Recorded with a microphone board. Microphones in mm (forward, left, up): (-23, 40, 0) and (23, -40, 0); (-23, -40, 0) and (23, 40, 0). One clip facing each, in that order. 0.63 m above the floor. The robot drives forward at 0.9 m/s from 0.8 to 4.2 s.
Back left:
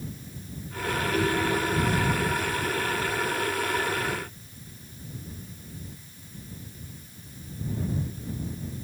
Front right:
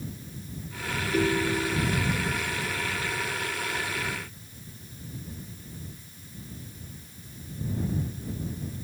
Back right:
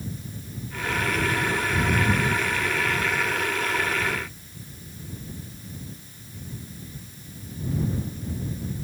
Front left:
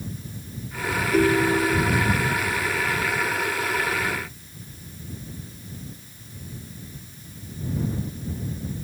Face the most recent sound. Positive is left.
turn(degrees=35)